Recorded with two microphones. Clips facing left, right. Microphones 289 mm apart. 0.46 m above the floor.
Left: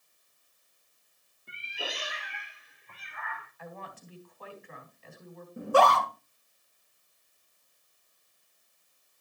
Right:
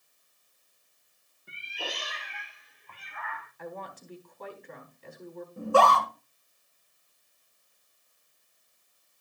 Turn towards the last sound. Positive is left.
turn(degrees=20)  # may be behind; listen again after turning